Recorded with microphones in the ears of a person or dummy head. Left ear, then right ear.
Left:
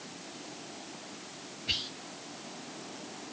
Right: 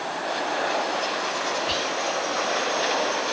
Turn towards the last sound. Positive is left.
turn(degrees=5)  # may be behind; listen again after turning